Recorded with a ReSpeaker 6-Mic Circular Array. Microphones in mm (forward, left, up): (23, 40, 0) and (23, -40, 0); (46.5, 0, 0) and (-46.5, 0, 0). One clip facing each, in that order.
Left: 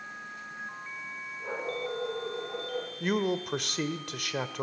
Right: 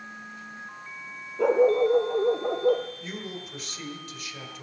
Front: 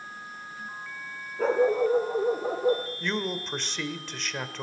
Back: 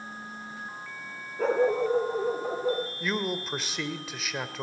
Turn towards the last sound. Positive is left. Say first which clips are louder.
# left 9 dB, even
turn(degrees=95)